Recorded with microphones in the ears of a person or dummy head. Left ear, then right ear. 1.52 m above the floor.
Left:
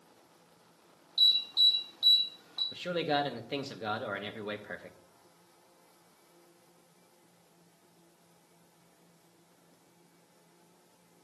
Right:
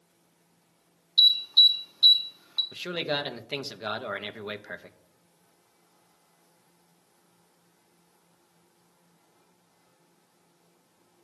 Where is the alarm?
25° right (ahead or behind), 2.5 m.